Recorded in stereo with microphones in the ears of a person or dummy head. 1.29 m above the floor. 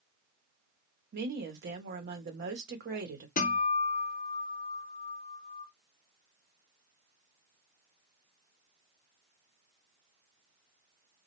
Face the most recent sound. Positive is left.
turn(degrees=40)  # may be behind; listen again after turning